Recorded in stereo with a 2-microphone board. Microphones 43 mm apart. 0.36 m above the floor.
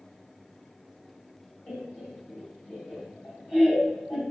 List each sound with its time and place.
1.7 s laughter: 40° left (ahead or behind), 1.7 m